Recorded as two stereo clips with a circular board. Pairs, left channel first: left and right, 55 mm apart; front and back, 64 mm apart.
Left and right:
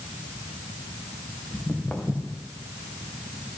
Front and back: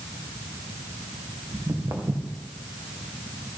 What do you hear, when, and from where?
1.5 s footsteps: 165° left, 2.5 m